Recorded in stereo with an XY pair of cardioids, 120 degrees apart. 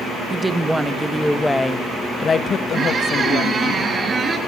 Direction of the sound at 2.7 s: 30° right.